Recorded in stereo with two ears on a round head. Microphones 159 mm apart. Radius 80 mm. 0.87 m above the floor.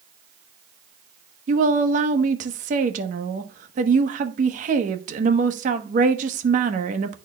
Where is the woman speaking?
45° right (ahead or behind), 1.0 m.